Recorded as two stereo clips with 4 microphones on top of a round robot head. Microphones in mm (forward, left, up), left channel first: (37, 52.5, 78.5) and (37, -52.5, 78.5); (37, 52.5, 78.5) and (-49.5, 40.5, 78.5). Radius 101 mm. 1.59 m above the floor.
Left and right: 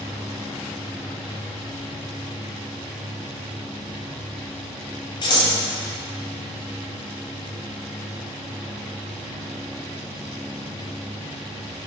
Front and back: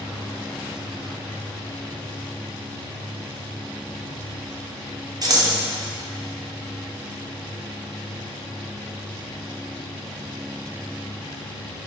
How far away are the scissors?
About 1.6 m.